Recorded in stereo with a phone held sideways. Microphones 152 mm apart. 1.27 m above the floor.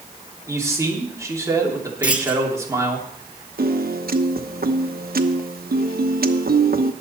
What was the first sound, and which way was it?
A man speaking, 20° right (ahead or behind).